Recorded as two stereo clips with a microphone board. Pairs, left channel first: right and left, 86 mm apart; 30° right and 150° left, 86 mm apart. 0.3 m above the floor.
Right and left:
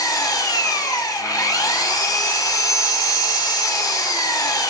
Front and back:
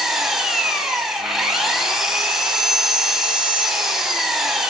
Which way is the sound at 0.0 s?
125° right.